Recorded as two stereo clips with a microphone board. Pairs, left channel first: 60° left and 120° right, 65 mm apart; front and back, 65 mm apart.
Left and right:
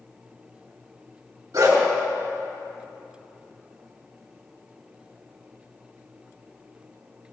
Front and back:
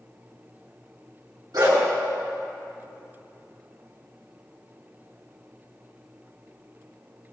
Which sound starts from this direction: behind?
A dog barking, at 1.5 s.